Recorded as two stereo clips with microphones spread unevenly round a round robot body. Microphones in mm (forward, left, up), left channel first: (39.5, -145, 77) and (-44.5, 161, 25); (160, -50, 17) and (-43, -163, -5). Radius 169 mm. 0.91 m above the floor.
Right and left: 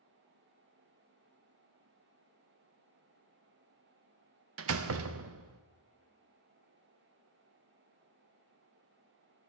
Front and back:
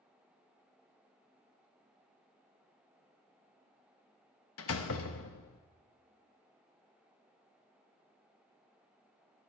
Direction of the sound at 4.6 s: 70° left.